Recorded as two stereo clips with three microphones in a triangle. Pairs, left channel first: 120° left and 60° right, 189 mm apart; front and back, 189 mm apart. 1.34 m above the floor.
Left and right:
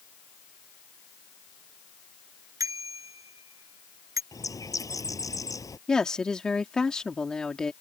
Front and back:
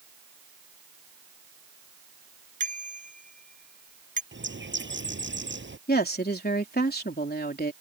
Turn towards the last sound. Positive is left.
turn(degrees=35)